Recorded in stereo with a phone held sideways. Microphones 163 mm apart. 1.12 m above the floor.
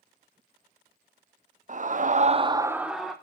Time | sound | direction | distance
1.7 | a scream | 50° right (ahead or behind) | 0.8 m